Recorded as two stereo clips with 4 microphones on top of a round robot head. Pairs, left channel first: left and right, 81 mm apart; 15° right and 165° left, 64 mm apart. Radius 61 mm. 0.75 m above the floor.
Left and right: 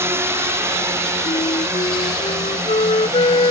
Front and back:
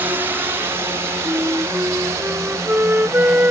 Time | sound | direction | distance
0.0 | a drone | 140° right | ?
1.2 | a flute | 105° left | ?